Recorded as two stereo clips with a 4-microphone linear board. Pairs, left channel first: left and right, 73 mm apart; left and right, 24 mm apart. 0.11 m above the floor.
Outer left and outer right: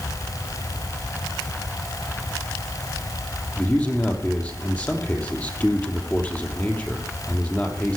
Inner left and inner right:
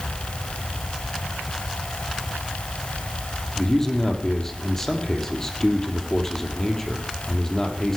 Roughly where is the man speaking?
Centre.